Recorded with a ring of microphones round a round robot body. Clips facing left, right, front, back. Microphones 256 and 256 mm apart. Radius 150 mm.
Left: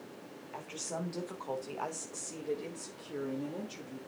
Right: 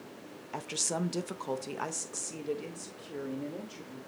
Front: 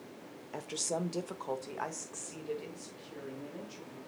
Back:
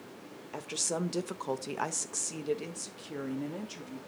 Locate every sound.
0.5 s a woman speaking: 95° right, 1.3 m; by 4.0 s 170° left, 2.5 m